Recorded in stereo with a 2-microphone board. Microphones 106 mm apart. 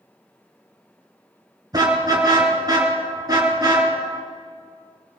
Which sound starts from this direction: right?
A car horn, at 1.7 s.